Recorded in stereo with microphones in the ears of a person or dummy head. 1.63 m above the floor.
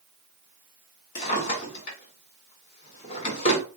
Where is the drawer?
45° left (ahead or behind), 1.8 m.